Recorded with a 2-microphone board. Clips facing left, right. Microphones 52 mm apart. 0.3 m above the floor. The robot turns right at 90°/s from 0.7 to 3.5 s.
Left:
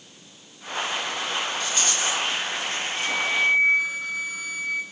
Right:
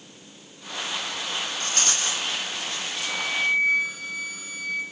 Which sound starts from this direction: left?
A flute, at 2.9 s.